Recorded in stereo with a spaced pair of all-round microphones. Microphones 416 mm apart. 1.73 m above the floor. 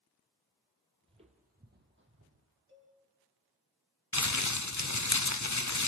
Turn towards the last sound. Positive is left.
turn(degrees=45)  # may be behind; listen again after turning